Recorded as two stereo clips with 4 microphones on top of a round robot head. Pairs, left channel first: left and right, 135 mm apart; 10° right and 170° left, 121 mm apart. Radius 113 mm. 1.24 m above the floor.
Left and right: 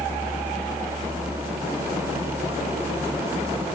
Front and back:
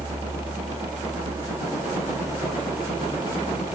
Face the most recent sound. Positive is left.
No sound to turn to.